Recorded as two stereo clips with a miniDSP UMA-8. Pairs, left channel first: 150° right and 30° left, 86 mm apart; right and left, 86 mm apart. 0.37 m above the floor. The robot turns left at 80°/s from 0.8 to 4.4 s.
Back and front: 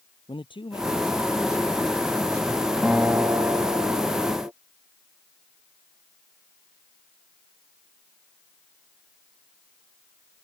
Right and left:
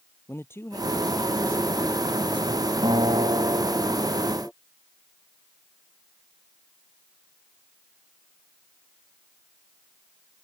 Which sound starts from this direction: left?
A guitar, at 2.8 s.